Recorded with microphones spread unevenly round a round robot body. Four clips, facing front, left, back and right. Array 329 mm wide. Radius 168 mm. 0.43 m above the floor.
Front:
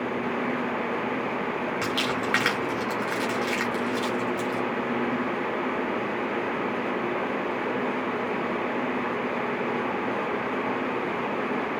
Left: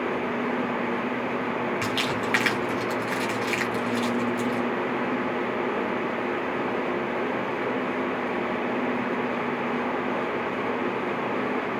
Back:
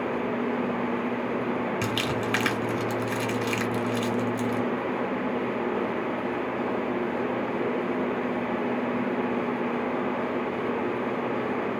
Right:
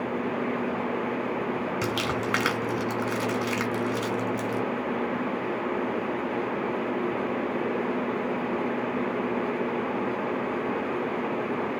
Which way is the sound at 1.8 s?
125° right.